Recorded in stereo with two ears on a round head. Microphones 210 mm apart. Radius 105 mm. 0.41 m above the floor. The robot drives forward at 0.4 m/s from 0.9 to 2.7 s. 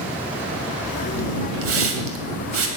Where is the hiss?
60° right (ahead or behind), 2.5 m.